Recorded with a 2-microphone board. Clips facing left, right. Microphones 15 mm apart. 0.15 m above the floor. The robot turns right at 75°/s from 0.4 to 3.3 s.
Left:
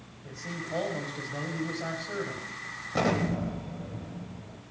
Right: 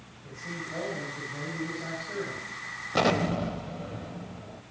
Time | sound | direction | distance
0.2 | a man speaking | 45° left | 6.5 m
2.9 | an explosion | 30° right (ahead or behind) | 1.3 m